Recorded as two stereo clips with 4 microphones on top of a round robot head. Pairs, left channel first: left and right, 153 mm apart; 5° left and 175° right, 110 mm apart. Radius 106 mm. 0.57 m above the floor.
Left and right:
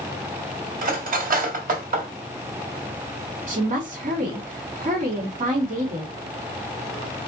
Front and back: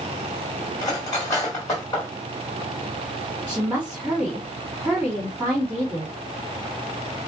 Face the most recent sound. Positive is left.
turn(degrees=-95)